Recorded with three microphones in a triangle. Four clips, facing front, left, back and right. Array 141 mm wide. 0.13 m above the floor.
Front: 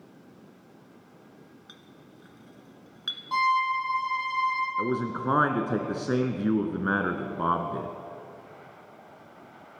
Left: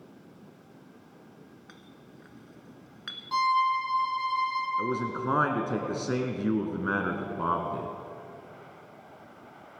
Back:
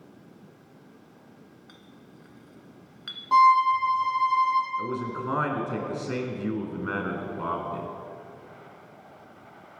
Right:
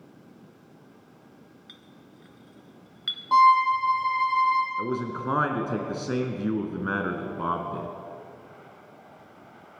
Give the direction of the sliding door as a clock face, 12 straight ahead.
I don't hear a sliding door.